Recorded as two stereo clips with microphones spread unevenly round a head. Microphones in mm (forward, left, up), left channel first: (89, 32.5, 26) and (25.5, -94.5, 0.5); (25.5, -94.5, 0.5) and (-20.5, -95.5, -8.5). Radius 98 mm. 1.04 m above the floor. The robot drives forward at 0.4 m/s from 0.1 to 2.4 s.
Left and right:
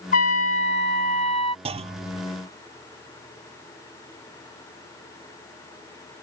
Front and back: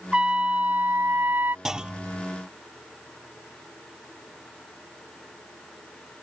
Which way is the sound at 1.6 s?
90° right.